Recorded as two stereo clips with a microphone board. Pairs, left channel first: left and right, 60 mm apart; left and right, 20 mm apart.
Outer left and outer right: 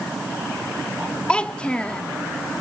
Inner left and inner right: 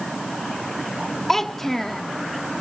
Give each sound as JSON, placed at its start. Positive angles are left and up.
{"t": 1.3, "sound": "a child speaking", "side_deg": 15, "distance_m": 0.6}